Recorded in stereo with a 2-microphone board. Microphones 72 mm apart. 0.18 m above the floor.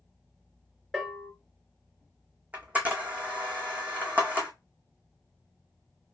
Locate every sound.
0.9 s a bell: centre (ahead or behind), 2 m
2.5 s a camera shutter: 20° right (ahead or behind), 1.6 m